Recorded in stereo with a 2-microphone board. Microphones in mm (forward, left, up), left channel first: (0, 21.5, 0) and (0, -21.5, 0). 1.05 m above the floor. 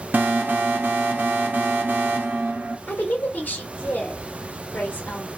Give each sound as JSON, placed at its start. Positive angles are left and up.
{"t": 0.1, "sound": "an alarm", "side_deg": -50, "distance_m": 0.7}
{"t": 2.9, "sound": "a woman speaking", "side_deg": 55, "distance_m": 1.1}